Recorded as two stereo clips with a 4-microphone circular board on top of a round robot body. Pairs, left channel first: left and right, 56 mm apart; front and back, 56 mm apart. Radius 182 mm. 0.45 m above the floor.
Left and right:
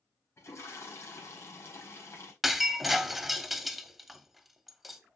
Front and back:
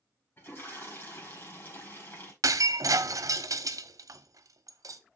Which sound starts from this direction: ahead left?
A toilet flushing, at 0.4 s.